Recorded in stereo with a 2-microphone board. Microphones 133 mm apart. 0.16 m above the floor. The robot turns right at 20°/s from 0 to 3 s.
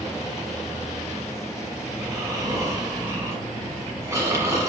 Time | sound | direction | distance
1.9 | snoring | 25° right (ahead or behind) | 1.4 m